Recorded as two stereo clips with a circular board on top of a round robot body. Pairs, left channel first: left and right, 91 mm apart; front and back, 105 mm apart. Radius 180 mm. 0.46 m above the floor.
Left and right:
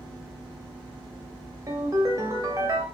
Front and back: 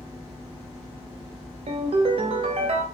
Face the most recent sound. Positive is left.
turn(degrees=-150)